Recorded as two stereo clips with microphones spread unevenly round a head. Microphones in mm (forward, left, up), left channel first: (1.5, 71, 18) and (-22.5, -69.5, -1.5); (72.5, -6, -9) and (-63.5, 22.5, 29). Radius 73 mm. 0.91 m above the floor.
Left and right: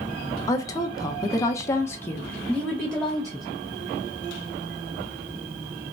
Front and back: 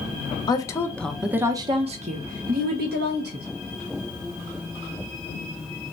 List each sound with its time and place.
0.5 s a woman speaking: 10° left, 0.8 m; by 3.5 s 170° left, 1.2 m